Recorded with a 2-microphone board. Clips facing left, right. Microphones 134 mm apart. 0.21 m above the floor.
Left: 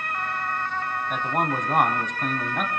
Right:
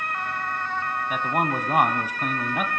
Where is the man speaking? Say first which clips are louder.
Right 1 dB; 5° right (ahead or behind), 1.2 m.